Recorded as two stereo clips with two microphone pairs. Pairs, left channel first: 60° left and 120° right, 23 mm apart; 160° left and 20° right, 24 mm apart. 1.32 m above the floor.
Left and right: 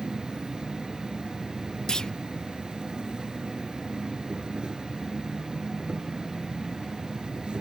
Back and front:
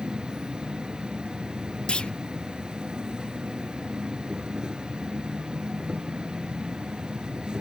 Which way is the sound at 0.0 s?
75° right.